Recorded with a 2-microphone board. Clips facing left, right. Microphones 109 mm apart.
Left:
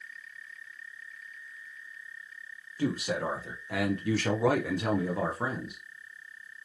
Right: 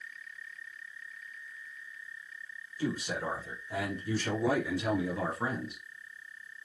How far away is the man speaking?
About 1.2 m.